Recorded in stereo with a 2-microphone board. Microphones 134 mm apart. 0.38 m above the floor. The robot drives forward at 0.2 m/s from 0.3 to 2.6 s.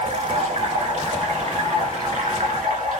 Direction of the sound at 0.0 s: 60° right (ahead or behind).